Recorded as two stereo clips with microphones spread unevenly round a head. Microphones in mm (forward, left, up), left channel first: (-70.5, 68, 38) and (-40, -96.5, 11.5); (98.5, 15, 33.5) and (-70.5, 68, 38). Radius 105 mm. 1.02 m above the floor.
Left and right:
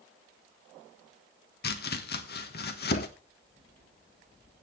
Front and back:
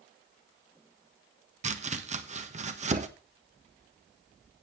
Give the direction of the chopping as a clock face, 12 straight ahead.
8 o'clock.